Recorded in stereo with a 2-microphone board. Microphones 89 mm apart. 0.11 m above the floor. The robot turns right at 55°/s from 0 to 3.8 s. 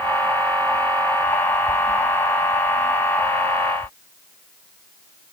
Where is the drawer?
I don't hear a drawer.